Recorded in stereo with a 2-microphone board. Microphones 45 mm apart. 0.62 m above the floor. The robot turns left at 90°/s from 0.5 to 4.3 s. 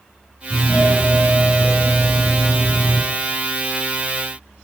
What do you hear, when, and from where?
0.5 s a doorbell: 150° left, 1.9 m; by 3.0 s 75° right, 1.9 m